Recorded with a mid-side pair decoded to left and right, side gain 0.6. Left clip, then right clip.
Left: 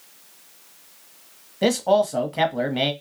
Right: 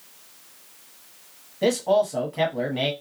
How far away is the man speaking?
About 1.1 m.